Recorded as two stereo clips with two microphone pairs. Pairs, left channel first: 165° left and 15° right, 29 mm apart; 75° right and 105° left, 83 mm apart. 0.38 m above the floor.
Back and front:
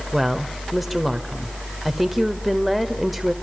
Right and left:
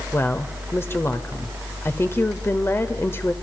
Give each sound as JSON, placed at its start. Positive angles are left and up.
{"t": 0.1, "sound": "a woman speaking", "azimuth_deg": -100, "distance_m": 1.4}